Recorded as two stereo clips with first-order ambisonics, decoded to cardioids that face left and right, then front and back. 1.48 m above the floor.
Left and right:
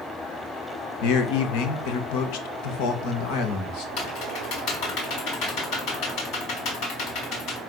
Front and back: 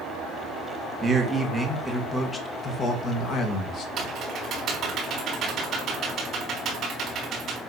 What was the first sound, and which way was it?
A man speaking, 105° left.